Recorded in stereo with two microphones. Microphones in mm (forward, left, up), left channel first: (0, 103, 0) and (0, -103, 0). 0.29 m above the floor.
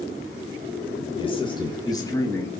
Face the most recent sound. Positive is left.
turn(degrees=10)  # may be behind; listen again after turning